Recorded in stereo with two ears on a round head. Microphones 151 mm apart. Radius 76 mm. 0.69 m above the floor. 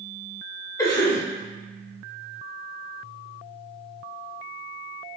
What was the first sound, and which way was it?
A cough, 20° left (ahead or behind).